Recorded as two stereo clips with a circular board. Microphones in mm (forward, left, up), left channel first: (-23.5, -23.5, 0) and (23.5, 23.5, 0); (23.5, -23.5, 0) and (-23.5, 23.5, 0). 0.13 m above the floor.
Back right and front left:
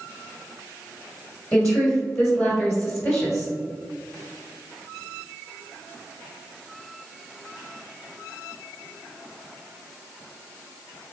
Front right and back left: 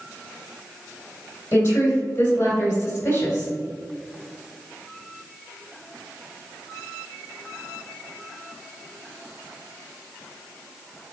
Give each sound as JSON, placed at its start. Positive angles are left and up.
{"t": 1.5, "sound": "a woman speaking", "azimuth_deg": -50, "distance_m": 1.7}